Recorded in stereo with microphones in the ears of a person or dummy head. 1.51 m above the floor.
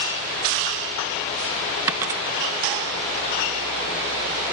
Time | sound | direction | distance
1.9 | a dropped coin | 5° right (ahead or behind) | ?